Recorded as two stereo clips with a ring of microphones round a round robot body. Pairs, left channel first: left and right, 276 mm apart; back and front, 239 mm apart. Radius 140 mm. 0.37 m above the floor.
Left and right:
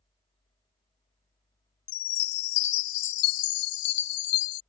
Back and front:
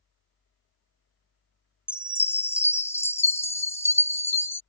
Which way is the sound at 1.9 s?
100° left.